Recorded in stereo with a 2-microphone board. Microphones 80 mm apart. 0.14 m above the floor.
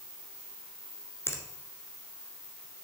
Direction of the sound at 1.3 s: 30° left (ahead or behind).